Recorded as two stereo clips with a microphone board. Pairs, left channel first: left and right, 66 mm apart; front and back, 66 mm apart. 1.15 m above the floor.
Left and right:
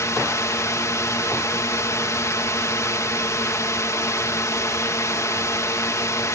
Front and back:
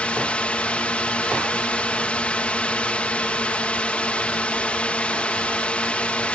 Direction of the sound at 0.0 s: 65° left.